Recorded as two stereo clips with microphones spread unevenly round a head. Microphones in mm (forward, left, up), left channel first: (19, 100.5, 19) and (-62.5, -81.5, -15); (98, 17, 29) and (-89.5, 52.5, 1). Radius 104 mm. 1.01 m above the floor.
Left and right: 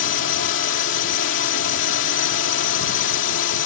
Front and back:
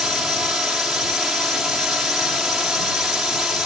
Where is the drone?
85° left.